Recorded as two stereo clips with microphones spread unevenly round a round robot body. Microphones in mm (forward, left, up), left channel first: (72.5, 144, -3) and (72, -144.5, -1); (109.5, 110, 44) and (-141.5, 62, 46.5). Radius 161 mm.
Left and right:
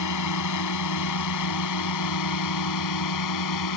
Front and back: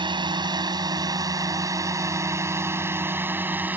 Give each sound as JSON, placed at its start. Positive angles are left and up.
{"t": 0.0, "sound": "a drone", "azimuth_deg": 120}